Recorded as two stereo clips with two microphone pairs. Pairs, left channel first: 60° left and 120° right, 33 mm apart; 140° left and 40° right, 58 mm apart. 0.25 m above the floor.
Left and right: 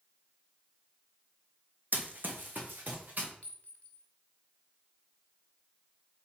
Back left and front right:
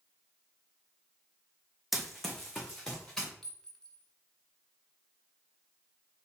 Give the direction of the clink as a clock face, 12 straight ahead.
10 o'clock.